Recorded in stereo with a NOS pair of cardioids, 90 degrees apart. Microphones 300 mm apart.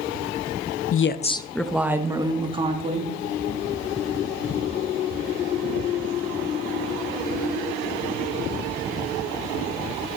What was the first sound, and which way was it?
A woman speaking, 50° left.